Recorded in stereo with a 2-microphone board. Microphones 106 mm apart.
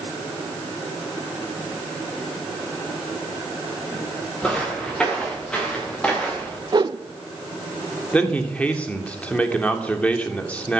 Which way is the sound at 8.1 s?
15° left (ahead or behind).